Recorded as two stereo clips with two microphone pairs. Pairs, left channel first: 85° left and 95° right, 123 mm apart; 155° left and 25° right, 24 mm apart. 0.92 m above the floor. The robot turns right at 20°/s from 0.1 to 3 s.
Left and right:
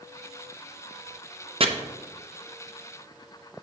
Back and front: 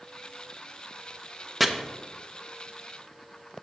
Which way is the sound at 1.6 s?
125° right.